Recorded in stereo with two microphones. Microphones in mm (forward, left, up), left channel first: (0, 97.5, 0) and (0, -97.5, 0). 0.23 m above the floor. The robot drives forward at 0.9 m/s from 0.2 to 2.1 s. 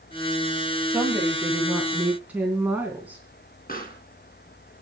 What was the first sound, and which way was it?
A woman speaking, 10° right (ahead or behind).